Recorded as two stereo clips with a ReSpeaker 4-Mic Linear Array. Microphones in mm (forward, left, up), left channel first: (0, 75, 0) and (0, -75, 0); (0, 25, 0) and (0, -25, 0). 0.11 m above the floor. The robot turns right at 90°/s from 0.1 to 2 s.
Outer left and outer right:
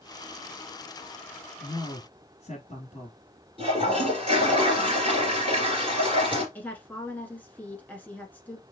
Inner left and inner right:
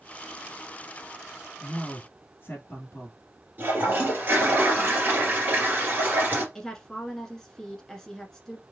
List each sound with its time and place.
1.6 s a man speaking: 55° left, 1.6 m; by 3.2 s 90° left, 1.6 m
3.6 s a toilet flushing: 35° right (ahead or behind), 2 m
6.5 s a woman speaking: 10° left (ahead or behind), 1.0 m